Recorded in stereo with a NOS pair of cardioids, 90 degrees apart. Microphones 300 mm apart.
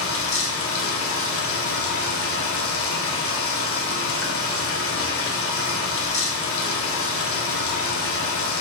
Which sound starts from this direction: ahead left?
Running water, at 0.0 s.